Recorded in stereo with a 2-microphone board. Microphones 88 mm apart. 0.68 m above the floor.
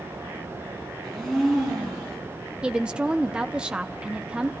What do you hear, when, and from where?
1.0 s a blender: centre (ahead or behind), 10 m
2.6 s a woman speaking: 10° right (ahead or behind), 0.7 m